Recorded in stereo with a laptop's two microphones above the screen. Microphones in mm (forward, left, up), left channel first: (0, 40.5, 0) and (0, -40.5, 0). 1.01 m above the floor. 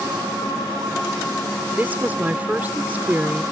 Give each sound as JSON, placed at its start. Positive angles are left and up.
{"t": 1.7, "sound": "a woman speaking", "side_deg": -20}